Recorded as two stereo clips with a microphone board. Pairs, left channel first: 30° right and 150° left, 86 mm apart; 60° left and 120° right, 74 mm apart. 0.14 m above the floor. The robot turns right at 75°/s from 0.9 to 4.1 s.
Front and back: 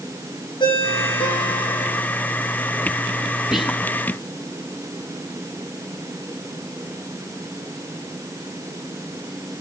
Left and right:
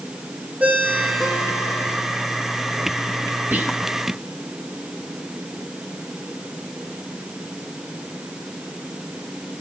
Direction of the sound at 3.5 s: 130° right.